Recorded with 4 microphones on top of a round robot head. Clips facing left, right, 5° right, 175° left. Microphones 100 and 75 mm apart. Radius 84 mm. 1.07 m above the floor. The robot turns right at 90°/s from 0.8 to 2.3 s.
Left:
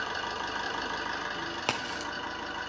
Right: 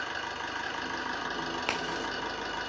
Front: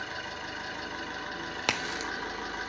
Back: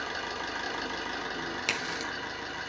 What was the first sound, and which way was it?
An engine running, 160° left.